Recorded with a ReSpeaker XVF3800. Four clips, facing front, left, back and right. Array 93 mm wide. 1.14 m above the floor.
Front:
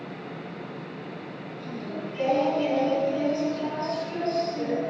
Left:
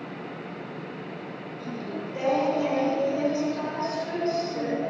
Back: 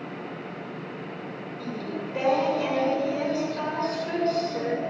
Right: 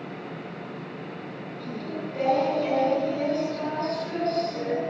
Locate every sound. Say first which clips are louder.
1.6 s singing: right 1 dB, back 2 dB; 165° left, 8 m